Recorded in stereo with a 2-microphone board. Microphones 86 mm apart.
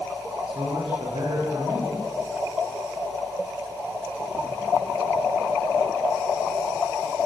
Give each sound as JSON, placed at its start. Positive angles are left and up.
{"t": 0.5, "sound": "a man speaking", "side_deg": -75, "distance_m": 7.5}